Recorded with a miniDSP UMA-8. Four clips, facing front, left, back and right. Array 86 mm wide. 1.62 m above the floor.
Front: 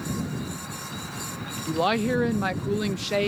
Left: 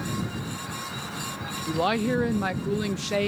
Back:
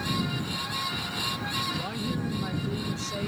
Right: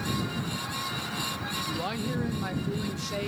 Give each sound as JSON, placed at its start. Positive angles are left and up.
{"t": 1.7, "sound": "a woman speaking", "azimuth_deg": 35}